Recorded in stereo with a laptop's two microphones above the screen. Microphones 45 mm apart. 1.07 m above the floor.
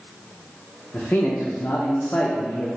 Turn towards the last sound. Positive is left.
turn(degrees=40)  # may be behind; listen again after turning